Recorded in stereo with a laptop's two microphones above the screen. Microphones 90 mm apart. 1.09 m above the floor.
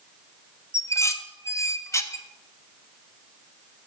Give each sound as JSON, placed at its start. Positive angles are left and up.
{"t": 0.7, "sound": "dishes clattering", "side_deg": 35, "distance_m": 0.6}